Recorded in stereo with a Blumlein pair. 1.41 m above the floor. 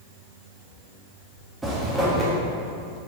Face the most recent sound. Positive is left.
turn(degrees=-10)